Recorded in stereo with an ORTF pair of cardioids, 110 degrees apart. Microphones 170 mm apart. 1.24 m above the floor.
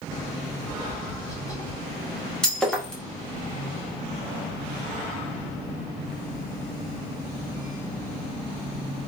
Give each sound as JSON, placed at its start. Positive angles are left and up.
{"t": 0.6, "sound": "tapping", "azimuth_deg": 20, "distance_m": 1.5}
{"t": 2.4, "sound": "breaking glass", "azimuth_deg": 5, "distance_m": 1.6}